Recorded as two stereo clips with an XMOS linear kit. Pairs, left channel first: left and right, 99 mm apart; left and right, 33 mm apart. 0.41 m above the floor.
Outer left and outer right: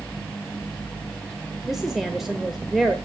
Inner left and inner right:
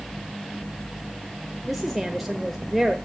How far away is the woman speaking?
About 1.1 m.